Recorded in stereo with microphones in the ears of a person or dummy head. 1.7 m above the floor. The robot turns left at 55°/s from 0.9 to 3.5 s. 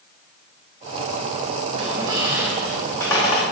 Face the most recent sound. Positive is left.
turn(degrees=130)